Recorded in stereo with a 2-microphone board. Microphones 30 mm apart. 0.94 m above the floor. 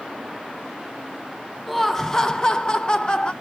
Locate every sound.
1.7 s laughter: 5° left (ahead or behind), 0.7 m; by 3.3 s 35° left (ahead or behind), 1.0 m